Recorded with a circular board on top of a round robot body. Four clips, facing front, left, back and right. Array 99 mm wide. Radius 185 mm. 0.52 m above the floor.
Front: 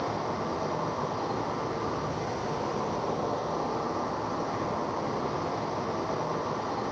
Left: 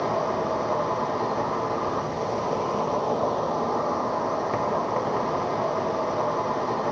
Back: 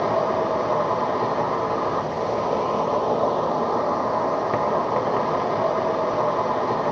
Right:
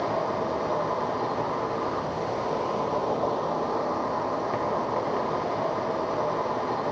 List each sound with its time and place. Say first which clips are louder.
0.0 s an insect: left 2 dB, back 10 dB; 170° left, 3 m